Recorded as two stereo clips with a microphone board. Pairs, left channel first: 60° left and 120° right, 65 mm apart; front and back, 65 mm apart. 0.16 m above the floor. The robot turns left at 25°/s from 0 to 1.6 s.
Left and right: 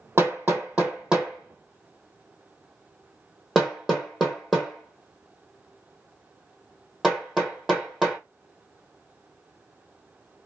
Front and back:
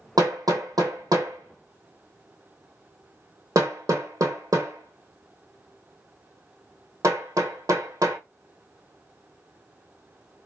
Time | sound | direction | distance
0.2 | hammering | 175° right | 1.3 m